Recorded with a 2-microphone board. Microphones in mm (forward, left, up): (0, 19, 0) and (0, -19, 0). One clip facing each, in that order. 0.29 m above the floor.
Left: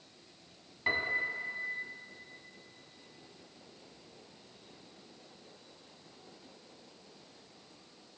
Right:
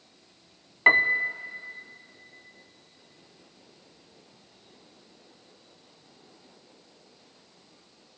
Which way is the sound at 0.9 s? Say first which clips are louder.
Right 11 dB; 65° right (ahead or behind).